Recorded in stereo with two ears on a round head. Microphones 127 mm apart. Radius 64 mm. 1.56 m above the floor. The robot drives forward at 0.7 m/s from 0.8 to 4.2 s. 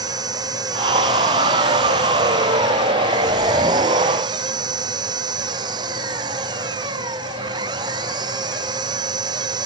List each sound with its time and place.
0.0 s an engine running: 30° right (ahead or behind)